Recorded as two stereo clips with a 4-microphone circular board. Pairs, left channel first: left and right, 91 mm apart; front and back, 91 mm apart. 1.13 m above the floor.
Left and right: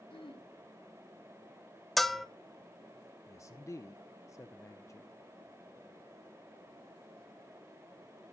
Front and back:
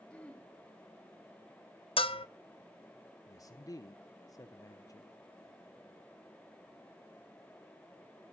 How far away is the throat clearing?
About 2 m.